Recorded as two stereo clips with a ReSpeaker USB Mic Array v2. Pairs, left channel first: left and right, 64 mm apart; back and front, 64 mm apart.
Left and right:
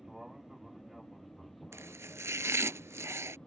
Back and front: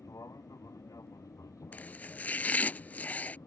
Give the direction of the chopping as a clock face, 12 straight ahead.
4 o'clock.